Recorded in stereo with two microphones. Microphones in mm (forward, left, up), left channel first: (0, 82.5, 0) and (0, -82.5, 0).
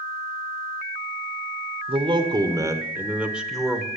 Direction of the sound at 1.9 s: 35° right (ahead or behind).